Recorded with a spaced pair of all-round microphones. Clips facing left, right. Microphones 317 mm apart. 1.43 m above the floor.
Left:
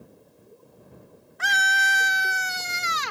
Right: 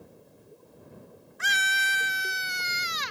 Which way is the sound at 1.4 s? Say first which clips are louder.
Left 6 dB; 70° left (ahead or behind).